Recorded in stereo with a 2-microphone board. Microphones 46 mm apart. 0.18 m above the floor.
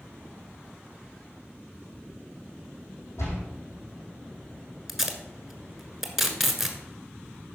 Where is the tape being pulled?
5° right (ahead or behind), 1.3 m.